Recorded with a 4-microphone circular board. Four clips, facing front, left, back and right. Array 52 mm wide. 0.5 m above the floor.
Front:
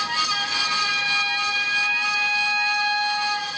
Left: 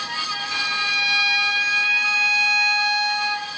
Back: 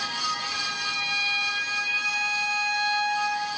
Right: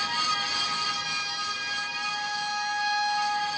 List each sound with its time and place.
0.5 s a violin: 70° left, 3 m